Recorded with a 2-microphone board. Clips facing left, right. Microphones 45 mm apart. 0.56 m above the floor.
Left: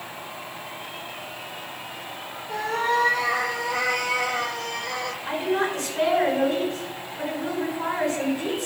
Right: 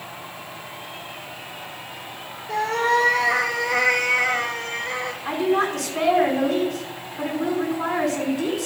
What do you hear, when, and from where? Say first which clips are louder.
2.5 s a cat meowing: right 3 dB; 70° right (ahead or behind), 2 m; by 5.2 s 25° right (ahead or behind), 1.4 m
5.2 s a woman speaking: right 4 dB; 65° right (ahead or behind), 5.5 m